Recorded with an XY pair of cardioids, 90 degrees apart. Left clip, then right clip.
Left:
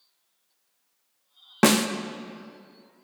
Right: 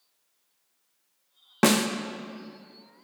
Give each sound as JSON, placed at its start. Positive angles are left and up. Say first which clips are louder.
{"t": 1.6, "sound": "a snare drum", "louder": "left 2 dB", "azimuth_deg": 15, "distance_m": 0.6}